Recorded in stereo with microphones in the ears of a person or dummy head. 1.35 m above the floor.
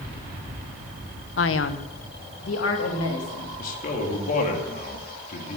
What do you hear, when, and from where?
1.4 s a man speaking: 60° left (ahead or behind), 0.7 m; by 3.5 s 75° left (ahead or behind), 3 m
3.6 s a man speaking: 50° left (ahead or behind), 2.5 m